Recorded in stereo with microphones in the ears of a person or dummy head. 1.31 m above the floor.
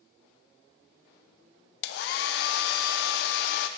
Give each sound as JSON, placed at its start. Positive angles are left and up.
{"t": 1.8, "sound": "a hair dryer", "side_deg": 65, "distance_m": 0.5}